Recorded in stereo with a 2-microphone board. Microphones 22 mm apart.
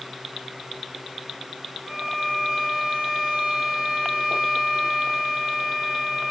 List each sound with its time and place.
1.9 s a violin: 25° right (ahead or behind), 3 m